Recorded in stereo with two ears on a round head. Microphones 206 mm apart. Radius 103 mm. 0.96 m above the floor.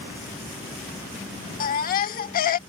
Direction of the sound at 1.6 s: 40° left (ahead or behind).